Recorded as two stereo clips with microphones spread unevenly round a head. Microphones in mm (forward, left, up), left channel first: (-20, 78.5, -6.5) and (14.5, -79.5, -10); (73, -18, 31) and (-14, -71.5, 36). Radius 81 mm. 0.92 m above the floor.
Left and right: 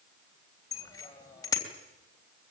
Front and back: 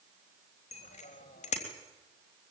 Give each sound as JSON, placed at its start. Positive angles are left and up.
{"t": 0.7, "sound": "a bicycle bell", "azimuth_deg": 30, "distance_m": 3.5}